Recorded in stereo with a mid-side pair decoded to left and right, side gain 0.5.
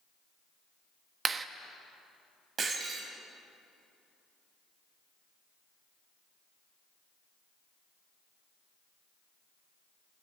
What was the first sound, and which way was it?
A clap, 40° right.